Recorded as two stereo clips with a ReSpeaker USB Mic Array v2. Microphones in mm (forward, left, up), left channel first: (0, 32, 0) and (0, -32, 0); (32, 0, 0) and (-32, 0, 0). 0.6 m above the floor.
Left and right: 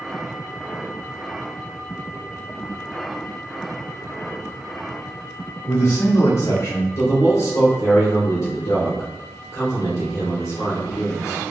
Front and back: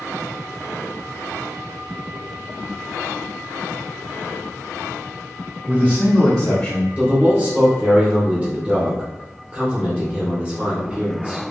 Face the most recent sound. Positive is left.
turn(degrees=115)